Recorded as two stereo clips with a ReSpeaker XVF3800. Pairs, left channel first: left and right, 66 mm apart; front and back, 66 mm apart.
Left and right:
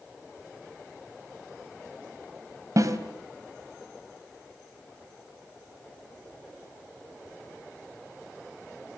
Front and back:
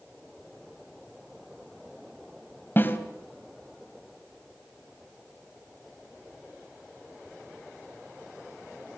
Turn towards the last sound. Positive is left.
turn(degrees=-55)